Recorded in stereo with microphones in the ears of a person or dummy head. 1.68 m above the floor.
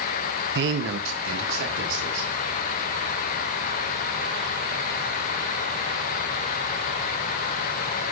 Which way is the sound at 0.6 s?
50° right (ahead or behind).